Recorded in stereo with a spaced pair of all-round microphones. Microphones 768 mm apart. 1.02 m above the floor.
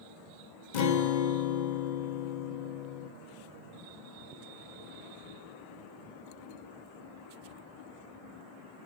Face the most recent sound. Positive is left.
turn(degrees=70)  # may be behind; listen again after turning